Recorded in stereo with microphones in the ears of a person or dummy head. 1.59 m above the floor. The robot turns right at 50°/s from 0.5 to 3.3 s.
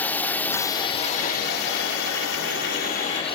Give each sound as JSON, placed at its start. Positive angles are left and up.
{"t": 0.0, "sound": "a drone", "azimuth_deg": 10}